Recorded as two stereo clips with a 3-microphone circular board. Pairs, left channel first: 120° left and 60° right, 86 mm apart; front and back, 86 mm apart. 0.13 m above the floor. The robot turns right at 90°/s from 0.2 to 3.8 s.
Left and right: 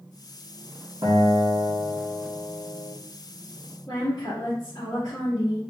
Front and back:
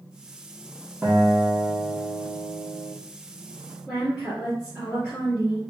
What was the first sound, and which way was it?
A guitar, 105° right.